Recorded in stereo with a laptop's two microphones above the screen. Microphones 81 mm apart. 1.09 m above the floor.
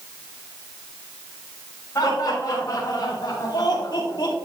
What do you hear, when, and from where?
1.9 s laughter: 50° left (ahead or behind), 3.5 m; by 4.4 s 60° left (ahead or behind), 2.0 m